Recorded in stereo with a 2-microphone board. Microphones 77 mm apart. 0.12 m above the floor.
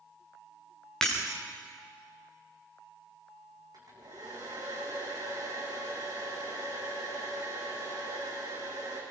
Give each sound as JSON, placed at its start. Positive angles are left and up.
{"t": 1.0, "sound": "breaking glass", "side_deg": 5, "distance_m": 7.0}
{"t": 3.7, "sound": "a hair dryer", "side_deg": -55, "distance_m": 8.0}